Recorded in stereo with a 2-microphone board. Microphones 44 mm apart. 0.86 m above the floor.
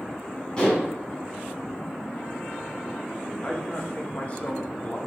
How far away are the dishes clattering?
About 4.5 m.